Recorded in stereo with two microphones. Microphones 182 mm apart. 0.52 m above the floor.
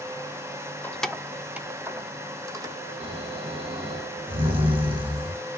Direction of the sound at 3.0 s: 30° right (ahead or behind).